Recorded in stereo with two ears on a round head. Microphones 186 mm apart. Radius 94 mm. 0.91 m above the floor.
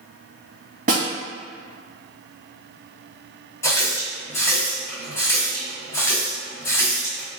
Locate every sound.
0.9 s a snare drum: 40° right (ahead or behind), 1.6 m
3.6 s a running tap: 15° left (ahead or behind), 0.9 m